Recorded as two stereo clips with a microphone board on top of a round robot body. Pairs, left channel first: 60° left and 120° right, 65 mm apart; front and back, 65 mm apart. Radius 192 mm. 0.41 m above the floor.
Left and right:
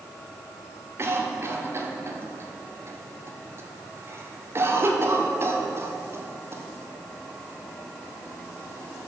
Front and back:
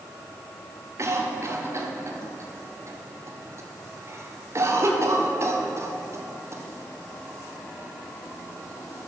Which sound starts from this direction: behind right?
A cough, at 1.0 s.